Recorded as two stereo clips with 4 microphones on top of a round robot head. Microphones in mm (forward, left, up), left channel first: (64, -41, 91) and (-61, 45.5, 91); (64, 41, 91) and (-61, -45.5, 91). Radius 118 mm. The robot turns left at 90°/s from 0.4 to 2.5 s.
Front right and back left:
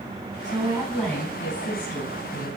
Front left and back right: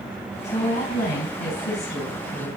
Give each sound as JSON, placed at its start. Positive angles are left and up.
{"t": 0.4, "sound": "a woman speaking", "azimuth_deg": 105, "distance_m": 6.5}